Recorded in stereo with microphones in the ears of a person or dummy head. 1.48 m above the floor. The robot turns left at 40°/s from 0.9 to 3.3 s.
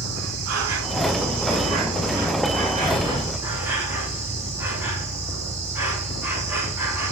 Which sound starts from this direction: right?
An insect, at 0.0 s.